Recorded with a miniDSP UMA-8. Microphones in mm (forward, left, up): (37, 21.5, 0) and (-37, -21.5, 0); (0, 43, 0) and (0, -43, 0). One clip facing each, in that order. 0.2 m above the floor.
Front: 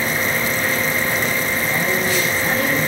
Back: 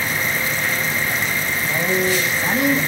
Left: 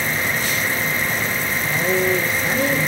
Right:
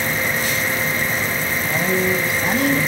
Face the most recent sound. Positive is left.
turn(degrees=-75)